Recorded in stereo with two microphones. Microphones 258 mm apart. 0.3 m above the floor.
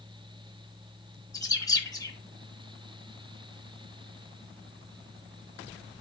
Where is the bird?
15° left (ahead or behind), 3 m.